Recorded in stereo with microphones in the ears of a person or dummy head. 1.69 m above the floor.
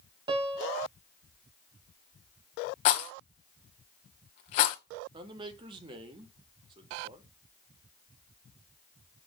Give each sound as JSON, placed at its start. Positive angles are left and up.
{"t": 0.3, "sound": "a piano", "side_deg": -25, "distance_m": 0.8}
{"t": 2.9, "sound": "a rattle", "side_deg": 50, "distance_m": 0.9}
{"t": 5.1, "sound": "a man speaking", "side_deg": -30, "distance_m": 1.0}